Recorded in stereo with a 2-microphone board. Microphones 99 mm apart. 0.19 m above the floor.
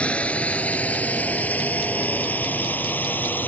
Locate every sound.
0.0 s a drone: 10° left (ahead or behind); by 3.5 s 15° left (ahead or behind)